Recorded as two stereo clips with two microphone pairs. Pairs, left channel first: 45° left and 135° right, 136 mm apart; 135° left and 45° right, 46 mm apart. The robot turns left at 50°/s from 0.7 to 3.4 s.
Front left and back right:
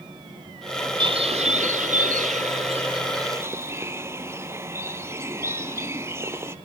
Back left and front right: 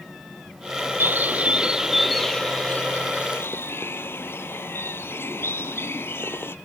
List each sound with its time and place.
1.0 s a bird: 80° right, 0.9 m; by 6.5 s 160° left, 0.9 m